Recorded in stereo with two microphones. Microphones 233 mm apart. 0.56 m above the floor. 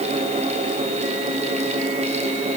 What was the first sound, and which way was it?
Only background noise.